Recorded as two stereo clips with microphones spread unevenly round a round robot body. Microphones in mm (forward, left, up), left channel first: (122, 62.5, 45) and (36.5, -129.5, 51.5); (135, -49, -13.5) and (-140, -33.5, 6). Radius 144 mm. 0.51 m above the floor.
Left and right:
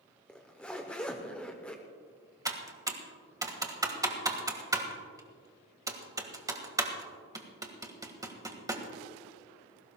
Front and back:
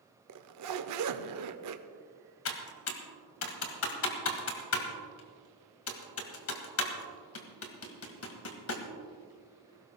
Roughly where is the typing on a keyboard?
Ahead right.